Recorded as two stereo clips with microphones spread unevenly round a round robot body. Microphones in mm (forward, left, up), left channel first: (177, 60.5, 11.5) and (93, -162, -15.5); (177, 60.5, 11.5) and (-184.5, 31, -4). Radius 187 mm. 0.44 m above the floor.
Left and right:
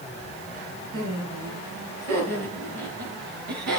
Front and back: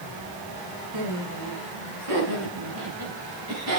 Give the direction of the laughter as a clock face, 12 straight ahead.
5 o'clock.